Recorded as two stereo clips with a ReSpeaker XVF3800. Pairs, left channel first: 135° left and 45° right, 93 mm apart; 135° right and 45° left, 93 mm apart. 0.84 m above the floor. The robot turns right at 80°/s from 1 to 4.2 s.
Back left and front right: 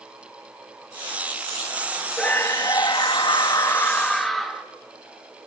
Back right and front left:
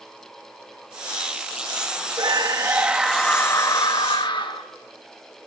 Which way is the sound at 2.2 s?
60° left.